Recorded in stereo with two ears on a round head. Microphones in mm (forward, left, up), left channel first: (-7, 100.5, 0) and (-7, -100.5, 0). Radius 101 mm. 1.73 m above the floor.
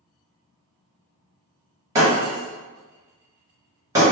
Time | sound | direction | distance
1.9 | breaking glass | 15° right (ahead or behind) | 1.1 m